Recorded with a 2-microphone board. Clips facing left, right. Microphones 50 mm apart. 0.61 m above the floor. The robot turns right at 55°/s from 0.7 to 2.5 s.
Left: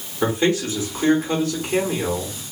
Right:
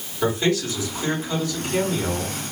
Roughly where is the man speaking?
Ahead left.